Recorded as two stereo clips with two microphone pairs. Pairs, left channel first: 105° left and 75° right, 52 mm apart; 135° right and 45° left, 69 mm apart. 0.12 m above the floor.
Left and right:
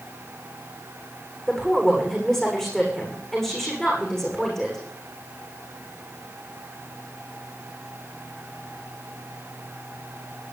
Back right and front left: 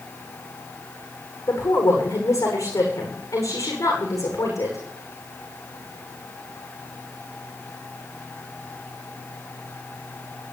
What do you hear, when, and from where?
1.5 s a woman speaking: 175° right, 8.5 m